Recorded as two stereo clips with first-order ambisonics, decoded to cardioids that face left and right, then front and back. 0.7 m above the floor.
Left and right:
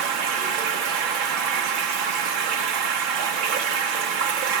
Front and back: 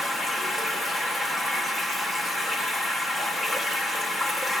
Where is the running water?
100° right, 5 m.